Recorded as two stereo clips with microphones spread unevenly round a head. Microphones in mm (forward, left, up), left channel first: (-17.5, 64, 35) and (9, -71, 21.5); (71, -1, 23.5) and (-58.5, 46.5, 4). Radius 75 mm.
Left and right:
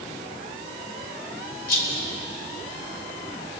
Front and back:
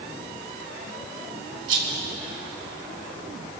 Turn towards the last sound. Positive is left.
turn(degrees=135)